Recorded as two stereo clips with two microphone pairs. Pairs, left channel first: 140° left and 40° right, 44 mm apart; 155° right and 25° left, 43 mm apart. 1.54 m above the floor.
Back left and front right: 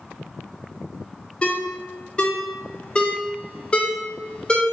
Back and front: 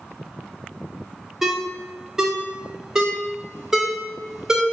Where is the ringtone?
90° left, 0.6 m.